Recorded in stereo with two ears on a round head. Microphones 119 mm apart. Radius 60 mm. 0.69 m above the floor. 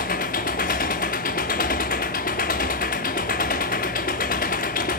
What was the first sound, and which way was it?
An engine running, 65° left (ahead or behind).